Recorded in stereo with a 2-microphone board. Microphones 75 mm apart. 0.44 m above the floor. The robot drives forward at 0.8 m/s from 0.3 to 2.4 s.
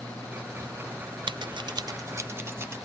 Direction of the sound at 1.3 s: 75° right (ahead or behind).